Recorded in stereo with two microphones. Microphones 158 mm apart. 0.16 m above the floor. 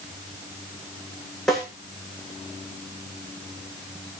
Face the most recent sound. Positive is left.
turn(degrees=5)  # may be behind; listen again after turning